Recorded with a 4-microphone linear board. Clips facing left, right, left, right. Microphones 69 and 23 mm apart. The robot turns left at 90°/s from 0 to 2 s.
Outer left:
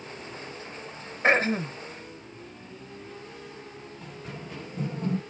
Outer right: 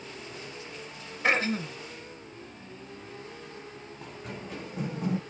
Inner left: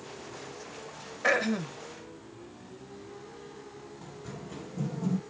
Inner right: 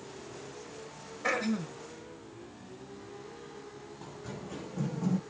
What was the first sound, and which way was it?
Throat clearing, 115° left.